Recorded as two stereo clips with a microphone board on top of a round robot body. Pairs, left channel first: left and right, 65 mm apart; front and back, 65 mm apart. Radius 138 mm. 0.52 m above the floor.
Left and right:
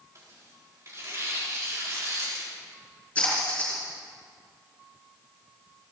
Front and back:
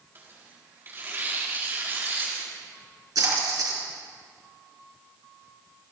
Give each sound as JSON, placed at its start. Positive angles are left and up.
{"t": 0.1, "sound": "tearing paper", "azimuth_deg": -130, "distance_m": 4.0}
{"t": 3.1, "sound": "a splash", "azimuth_deg": 160, "distance_m": 6.5}